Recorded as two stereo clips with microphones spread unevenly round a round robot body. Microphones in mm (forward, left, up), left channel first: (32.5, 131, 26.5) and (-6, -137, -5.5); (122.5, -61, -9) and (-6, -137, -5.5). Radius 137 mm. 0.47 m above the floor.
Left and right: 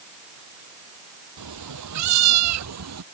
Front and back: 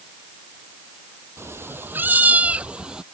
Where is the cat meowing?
75° right; by 3.0 s 65° right.